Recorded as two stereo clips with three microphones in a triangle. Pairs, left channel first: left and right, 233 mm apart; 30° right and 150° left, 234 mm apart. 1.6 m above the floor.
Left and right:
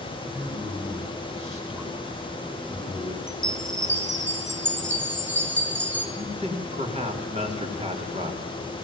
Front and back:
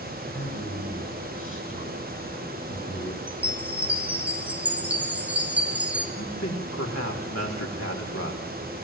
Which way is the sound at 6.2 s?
25° right.